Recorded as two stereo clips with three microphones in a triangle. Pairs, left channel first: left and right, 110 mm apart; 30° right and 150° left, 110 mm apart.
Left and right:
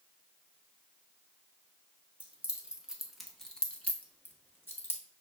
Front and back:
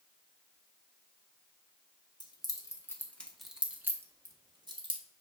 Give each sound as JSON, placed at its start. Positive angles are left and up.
{"t": 2.2, "sound": "keys jangling", "azimuth_deg": -20, "distance_m": 1.0}